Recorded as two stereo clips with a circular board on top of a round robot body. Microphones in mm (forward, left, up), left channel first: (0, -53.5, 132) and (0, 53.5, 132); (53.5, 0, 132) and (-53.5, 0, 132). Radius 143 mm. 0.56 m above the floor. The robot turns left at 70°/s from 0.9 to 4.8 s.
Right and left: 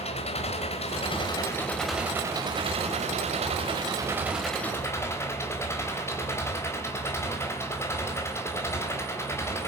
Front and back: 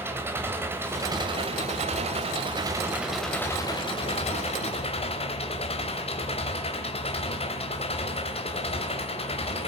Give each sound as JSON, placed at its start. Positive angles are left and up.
{"t": 0.0, "sound": "an engine running", "azimuth_deg": -110, "distance_m": 3.0}